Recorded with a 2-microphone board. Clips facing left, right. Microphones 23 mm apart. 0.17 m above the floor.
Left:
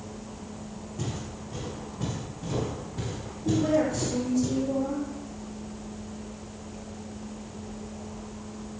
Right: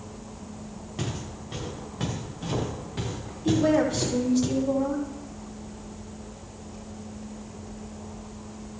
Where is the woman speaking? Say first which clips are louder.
Right 2 dB; 70° right (ahead or behind), 5.5 m.